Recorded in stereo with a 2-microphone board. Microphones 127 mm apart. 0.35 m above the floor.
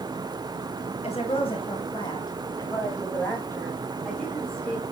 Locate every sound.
1.0 s a woman speaking: 55° left (ahead or behind), 2.5 m; by 4.8 s 5° left (ahead or behind), 3.5 m